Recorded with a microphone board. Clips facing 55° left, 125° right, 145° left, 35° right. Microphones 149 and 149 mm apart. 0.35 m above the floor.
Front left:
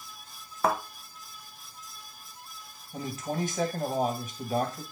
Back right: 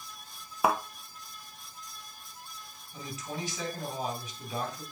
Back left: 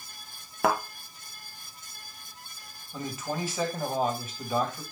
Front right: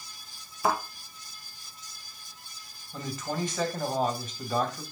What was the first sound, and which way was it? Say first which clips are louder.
A thud: even, back left 2 dB; 155° left.